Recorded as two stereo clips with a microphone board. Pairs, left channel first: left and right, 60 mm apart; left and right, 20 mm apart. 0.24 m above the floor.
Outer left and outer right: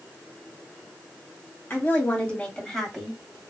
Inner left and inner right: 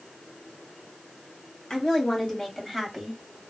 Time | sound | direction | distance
1.7 | a woman speaking | 35° left (ahead or behind) | 1.8 m